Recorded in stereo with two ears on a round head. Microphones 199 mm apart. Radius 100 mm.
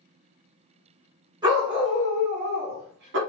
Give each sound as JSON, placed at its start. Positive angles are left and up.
{"t": 1.4, "sound": "a dog barking", "side_deg": -20, "distance_m": 1.9}